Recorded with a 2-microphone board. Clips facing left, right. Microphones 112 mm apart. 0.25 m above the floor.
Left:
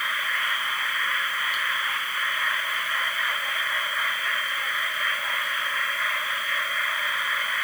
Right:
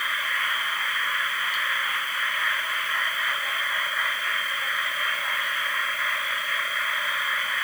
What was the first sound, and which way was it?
Only background noise.